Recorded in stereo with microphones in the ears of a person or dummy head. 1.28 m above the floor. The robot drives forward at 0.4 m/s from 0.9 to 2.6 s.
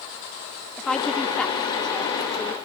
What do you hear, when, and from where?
0.8 s a woman speaking: 5° left (ahead or behind)